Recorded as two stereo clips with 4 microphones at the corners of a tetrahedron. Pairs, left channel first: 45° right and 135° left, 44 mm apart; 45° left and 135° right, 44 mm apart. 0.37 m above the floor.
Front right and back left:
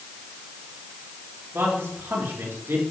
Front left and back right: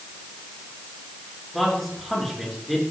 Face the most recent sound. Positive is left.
turn(degrees=135)